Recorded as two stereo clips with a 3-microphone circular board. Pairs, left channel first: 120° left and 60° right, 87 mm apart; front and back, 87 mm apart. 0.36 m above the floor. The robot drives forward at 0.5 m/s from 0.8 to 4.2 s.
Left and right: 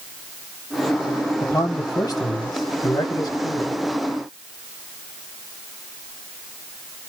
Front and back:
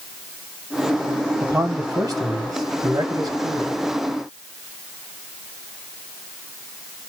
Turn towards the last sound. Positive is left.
turn(degrees=155)